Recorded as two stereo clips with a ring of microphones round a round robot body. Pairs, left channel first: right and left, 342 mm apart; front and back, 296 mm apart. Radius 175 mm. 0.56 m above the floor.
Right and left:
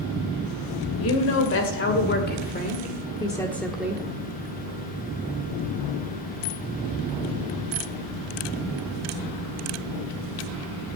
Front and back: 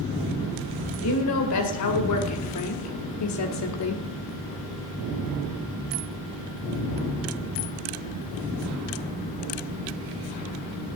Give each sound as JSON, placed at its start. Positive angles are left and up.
{"t": 1.0, "sound": "a woman speaking", "azimuth_deg": -40, "distance_m": 2.5}